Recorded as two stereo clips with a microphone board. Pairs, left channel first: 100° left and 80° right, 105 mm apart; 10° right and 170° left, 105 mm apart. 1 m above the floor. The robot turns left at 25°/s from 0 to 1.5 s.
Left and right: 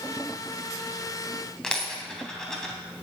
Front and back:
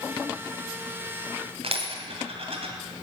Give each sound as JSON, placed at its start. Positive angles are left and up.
{"t": 1.6, "sound": "a dropped coin", "azimuth_deg": -175, "distance_m": 2.5}